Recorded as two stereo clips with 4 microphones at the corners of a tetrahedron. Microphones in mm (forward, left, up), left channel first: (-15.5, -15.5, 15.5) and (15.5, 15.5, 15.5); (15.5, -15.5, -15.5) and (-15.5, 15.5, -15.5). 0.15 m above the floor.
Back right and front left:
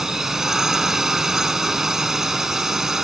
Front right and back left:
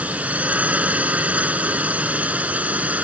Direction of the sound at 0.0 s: 115° left.